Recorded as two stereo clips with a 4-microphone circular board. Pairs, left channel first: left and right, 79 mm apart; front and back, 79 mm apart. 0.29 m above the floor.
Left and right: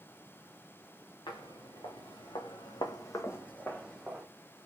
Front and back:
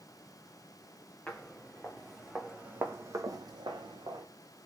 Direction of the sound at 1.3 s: 75° left.